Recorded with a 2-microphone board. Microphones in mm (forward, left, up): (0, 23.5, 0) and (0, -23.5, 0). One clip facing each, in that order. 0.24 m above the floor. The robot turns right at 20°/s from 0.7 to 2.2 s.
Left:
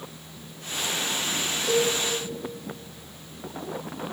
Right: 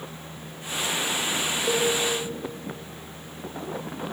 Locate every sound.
1.7 s a cowbell: 35° right (ahead or behind), 5.5 m; by 1.9 s 40° right (ahead or behind), 5.5 m